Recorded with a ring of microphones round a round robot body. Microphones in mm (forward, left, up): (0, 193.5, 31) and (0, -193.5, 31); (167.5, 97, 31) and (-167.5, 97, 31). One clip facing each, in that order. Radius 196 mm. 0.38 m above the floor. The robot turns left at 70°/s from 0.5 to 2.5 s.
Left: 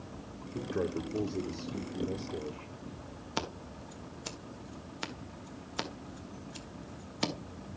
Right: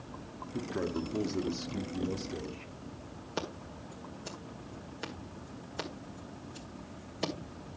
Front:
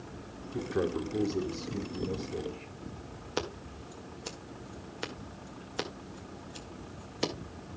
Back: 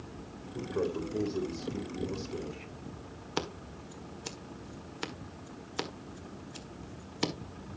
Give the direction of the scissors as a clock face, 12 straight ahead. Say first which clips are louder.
Right 1 dB, front 1 dB; 8 o'clock.